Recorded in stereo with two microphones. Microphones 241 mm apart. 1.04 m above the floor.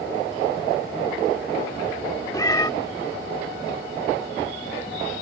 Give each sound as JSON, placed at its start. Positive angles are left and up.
{"t": 2.3, "sound": "a cat meowing", "side_deg": 15}